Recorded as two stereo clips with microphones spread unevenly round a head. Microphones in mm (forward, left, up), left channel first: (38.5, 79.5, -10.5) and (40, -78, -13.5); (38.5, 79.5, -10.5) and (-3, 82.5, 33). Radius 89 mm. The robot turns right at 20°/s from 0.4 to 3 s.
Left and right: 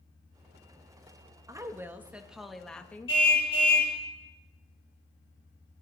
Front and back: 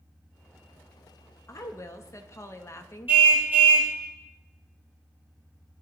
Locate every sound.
1.5 s a woman speaking: 20° right, 1.5 m; by 3.2 s 10° left, 1.5 m
3.1 s a car horn: 155° left, 3 m